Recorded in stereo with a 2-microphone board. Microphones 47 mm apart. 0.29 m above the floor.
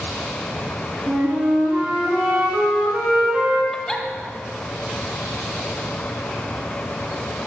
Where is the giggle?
15° left (ahead or behind), 0.7 m.